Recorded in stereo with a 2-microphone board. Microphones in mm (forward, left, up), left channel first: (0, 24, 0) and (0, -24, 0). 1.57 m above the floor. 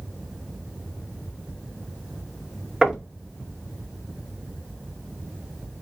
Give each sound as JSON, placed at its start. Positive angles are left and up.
{"t": 2.8, "sound": "knocking", "side_deg": -10, "distance_m": 1.9}